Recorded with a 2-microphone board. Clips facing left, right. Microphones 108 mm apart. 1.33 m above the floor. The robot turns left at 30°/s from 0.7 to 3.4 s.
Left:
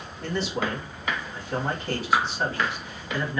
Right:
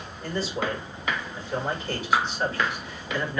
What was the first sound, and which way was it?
A man speaking, 80° left.